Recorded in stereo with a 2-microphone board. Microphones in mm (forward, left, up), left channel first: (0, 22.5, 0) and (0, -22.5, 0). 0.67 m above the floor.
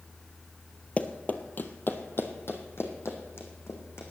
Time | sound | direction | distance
1.0 | running footsteps | 30° left (ahead or behind) | 1.0 m